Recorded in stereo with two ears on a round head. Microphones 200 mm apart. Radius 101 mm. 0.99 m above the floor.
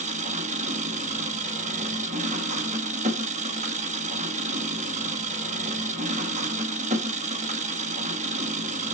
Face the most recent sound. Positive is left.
turn(degrees=-30)  # may be behind; listen again after turning